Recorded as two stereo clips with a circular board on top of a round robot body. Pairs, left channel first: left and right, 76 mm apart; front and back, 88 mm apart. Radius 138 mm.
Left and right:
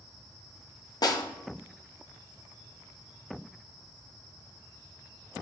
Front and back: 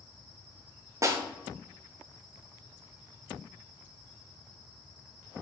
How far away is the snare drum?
About 1.1 m.